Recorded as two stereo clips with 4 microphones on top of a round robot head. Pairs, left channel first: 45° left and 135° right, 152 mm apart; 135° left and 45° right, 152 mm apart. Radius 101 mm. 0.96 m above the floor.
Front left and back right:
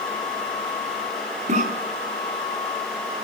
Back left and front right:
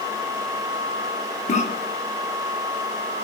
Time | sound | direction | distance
1.5 | a cough | straight behind | 2 m